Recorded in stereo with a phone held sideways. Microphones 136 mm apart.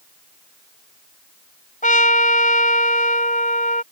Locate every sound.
1.8 s a trumpet: 70° left (ahead or behind)